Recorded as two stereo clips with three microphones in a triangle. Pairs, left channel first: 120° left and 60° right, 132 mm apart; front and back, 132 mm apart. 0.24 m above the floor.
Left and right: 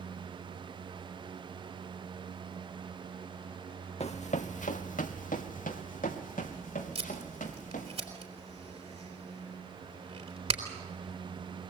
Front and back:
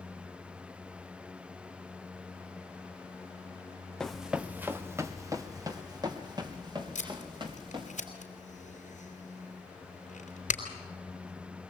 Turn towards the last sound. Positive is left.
turn(degrees=-20)